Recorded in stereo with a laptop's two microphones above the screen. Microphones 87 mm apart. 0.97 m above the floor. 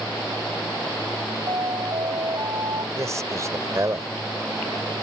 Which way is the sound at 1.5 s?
60° right (ahead or behind).